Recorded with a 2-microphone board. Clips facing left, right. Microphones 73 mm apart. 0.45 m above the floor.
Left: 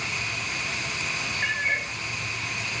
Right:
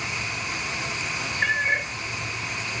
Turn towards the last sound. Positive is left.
turn(degrees=-75)  # may be behind; listen again after turning